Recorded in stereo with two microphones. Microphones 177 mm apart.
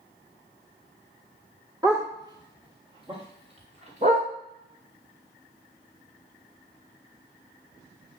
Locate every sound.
1.8 s a dog barking: 20° right (ahead or behind), 4.5 m; by 4.3 s 40° right (ahead or behind), 5.5 m